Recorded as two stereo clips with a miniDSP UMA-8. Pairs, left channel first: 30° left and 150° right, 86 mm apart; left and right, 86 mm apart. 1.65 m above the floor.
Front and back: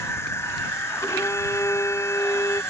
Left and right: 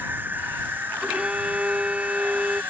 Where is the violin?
15° right.